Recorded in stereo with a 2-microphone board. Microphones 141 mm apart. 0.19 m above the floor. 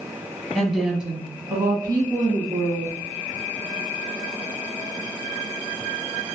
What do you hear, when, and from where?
0.6 s a woman speaking: 5° left (ahead or behind), 1.2 m; by 2.9 s 45° right (ahead or behind), 1.4 m